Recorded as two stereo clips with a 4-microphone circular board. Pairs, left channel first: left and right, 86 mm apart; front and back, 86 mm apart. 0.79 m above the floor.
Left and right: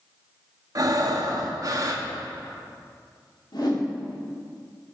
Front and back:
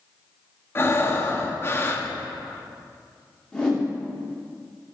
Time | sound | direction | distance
0.8 | breathing | 55° right | 1.0 m
3.5 | a whoosh | 80° left | 2.5 m